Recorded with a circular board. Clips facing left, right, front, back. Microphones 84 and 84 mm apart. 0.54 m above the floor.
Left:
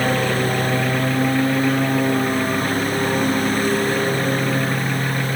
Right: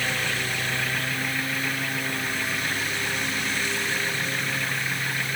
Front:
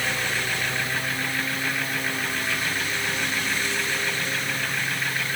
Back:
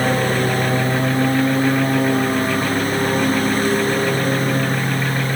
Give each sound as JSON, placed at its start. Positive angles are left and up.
{"t": 0.0, "sound": "a lawn mower", "azimuth_deg": 135}